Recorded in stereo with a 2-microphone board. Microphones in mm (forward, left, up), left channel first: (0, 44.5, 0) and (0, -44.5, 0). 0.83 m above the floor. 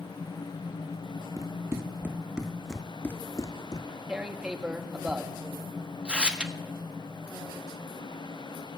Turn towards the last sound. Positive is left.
turn(degrees=-15)  # may be behind; listen again after turning